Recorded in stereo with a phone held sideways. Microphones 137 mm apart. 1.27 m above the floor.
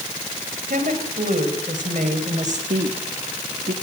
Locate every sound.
0.7 s a woman speaking: 85° right, 5 m; by 2.6 s 65° right (ahead or behind), 5 m
2.7 s a woman speaking: 85° right, 1.7 m